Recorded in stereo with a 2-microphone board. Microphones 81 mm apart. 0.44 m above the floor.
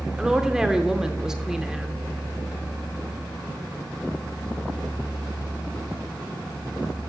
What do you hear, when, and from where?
0.2 s a woman speaking: 10° right (ahead or behind), 0.7 m